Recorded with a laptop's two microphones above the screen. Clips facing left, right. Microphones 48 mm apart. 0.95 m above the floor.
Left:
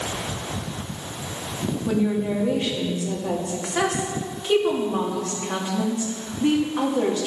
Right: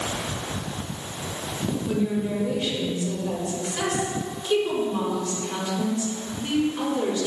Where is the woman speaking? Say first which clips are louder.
Left 4 dB; 65° left (ahead or behind), 1.5 m.